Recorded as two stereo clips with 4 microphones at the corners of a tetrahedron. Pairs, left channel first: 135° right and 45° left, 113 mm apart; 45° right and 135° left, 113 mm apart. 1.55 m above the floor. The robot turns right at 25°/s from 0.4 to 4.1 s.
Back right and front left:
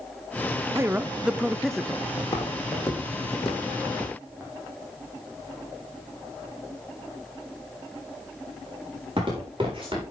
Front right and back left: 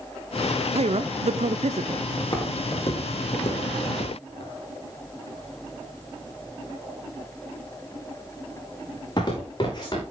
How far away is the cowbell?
No cowbell in this recording.